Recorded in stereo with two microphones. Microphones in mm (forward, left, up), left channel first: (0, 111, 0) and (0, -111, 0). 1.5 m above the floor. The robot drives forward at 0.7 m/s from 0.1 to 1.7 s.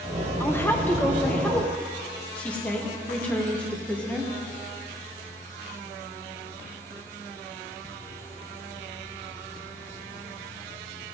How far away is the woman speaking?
About 1.1 m.